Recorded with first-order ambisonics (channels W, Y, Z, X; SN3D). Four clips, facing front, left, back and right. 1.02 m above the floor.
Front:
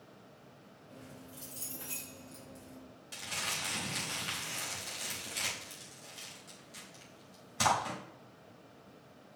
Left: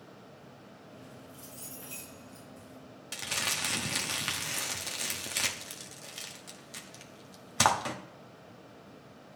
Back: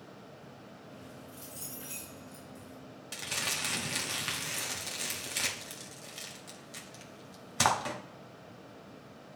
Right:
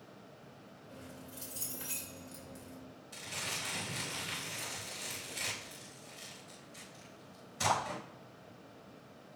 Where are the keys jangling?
80° right, 3 m.